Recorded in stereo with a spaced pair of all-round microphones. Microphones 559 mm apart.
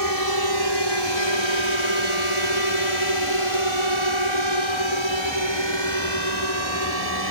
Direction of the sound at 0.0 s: 35° left (ahead or behind).